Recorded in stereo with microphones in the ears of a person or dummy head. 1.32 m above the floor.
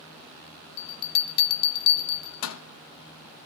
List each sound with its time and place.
0.8 s a bell: 75° left (ahead or behind), 0.6 m